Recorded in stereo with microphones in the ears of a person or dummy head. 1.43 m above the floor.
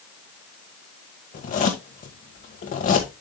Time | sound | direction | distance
1.3 | a zipper | 45° left (ahead or behind) | 1.8 m